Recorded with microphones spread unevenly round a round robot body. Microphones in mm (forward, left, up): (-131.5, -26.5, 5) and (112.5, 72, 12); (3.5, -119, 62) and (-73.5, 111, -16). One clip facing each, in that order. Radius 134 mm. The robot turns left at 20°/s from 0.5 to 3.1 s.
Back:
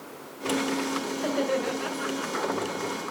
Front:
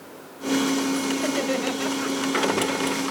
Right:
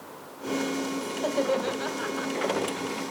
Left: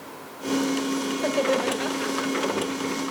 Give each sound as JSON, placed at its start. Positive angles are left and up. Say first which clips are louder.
{"t": 1.1, "sound": "laughter", "louder": "front 2 dB, even", "azimuth_deg": 55, "distance_m": 1.8}